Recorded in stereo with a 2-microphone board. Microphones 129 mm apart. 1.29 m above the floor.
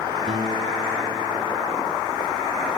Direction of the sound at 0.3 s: 80° right.